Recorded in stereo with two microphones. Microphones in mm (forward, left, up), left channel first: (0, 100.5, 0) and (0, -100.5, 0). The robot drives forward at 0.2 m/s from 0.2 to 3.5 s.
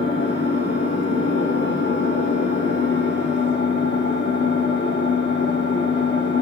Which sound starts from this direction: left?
An engine running, at 0.0 s.